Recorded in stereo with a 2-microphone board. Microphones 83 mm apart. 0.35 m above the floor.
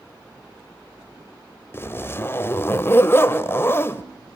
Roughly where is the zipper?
Left.